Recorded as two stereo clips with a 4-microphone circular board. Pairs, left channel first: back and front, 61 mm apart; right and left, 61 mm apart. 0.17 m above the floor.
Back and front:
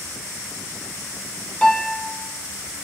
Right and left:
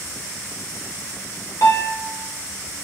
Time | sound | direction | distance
1.6 | a piano | 105° right | 2.5 m